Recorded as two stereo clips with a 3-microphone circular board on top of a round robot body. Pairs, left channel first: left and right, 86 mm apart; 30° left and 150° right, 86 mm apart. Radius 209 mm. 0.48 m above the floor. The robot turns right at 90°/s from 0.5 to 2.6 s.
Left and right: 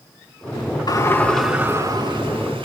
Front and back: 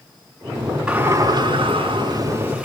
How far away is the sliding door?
About 8 m.